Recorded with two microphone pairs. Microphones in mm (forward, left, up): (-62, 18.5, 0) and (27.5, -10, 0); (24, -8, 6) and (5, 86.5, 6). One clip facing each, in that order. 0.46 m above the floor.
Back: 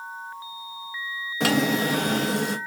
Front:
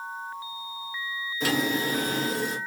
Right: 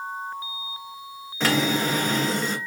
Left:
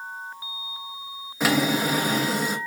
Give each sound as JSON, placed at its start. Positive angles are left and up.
{"t": 1.4, "sound": "a drawer", "azimuth_deg": 180, "distance_m": 0.6}